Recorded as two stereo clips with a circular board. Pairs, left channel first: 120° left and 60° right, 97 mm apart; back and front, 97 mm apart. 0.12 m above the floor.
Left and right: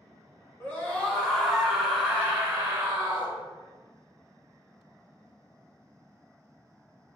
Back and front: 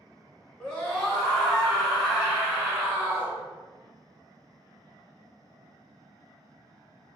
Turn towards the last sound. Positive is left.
turn(degrees=-65)